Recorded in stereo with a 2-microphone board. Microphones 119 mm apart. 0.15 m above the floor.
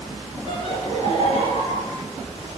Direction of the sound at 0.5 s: 45° left (ahead or behind).